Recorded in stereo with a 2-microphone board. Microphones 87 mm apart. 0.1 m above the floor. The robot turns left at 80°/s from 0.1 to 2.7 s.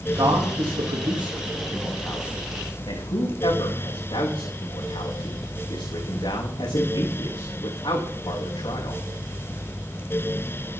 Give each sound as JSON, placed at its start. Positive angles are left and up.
{"t": 0.2, "sound": "a man speaking", "side_deg": -30, "distance_m": 8.0}